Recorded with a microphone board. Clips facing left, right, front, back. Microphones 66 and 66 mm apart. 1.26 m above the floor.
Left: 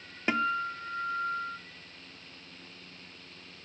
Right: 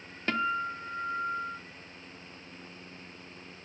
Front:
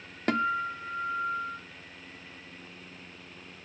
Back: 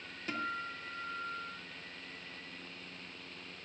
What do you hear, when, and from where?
0.3 s a guitar: 15° left, 0.7 m